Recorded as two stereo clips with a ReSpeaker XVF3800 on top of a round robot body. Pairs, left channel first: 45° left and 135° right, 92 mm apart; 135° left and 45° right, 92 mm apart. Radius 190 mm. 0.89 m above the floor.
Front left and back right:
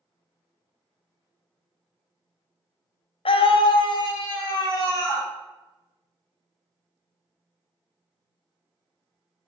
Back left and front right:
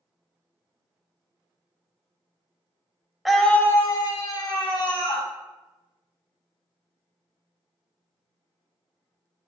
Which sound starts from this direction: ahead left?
A scream, at 3.2 s.